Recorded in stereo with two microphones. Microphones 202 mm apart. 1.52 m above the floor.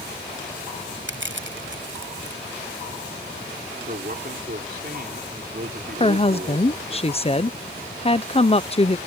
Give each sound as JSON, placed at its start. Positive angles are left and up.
{"t": 1.1, "sound": "crushing", "side_deg": -70}
{"t": 3.9, "sound": "a man speaking", "side_deg": -50}
{"t": 6.0, "sound": "a woman speaking", "side_deg": 30}